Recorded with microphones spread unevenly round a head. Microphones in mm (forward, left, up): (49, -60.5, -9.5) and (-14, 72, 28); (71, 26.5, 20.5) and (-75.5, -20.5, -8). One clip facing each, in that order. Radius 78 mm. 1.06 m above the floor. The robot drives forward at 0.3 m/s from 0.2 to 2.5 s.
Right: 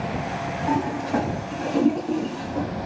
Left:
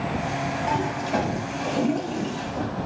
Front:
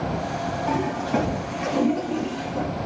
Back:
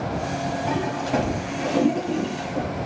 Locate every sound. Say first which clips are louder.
0.7 s a toilet flushing: right 4 dB, front 1 dB; 160° left, 1.5 m; by 2.7 s 170° left, 2.0 m